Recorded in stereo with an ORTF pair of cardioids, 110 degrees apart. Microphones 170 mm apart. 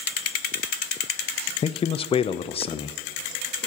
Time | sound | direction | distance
1.6 | a man speaking | 35° left | 0.5 m